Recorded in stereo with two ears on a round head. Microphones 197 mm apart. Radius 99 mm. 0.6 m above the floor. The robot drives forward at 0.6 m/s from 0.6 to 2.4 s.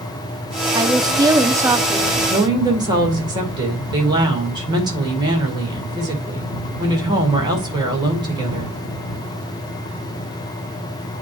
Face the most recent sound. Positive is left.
turn(degrees=-20)  # may be behind; listen again after turning